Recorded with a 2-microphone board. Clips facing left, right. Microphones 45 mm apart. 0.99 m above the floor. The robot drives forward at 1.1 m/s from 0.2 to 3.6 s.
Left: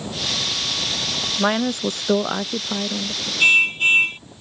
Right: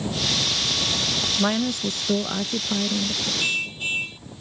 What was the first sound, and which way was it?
A woman speaking, 20° left (ahead or behind).